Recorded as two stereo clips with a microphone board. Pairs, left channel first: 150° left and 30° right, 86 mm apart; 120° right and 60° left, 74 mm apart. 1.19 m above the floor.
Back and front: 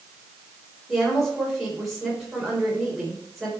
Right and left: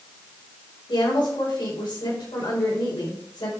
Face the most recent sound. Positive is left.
turn(degrees=-120)